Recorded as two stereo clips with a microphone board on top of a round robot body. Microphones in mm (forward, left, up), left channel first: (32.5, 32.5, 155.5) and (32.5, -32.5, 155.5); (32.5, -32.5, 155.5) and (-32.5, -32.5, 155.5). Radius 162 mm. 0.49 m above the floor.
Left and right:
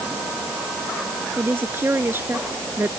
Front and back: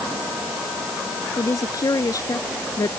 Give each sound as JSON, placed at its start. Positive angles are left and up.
{"t": 1.4, "sound": "a woman speaking", "azimuth_deg": -35}